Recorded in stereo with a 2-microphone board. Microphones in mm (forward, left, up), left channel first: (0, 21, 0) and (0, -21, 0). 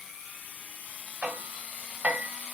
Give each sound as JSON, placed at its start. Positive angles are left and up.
{"t": 1.2, "sound": "hammering", "side_deg": -40, "distance_m": 1.6}